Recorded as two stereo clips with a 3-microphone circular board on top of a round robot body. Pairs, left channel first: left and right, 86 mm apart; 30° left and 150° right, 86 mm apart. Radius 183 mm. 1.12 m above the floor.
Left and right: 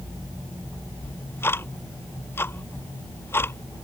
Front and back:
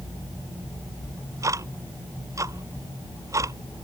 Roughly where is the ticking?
Behind left.